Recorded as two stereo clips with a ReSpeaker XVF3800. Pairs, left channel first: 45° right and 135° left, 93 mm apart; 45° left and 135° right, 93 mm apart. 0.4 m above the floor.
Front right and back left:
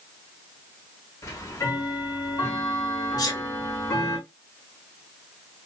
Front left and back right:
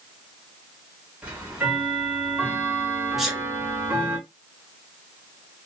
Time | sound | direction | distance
1.2 | ticking | 70° right | 1.2 m
3.2 | a sneeze | 45° right | 1.0 m